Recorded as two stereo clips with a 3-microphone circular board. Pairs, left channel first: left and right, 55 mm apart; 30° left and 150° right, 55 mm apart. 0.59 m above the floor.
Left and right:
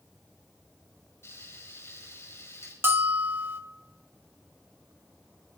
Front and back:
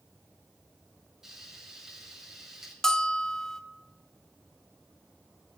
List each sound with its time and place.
1.2 s frying: 130° left, 5 m
2.8 s a bell: 45° right, 1.1 m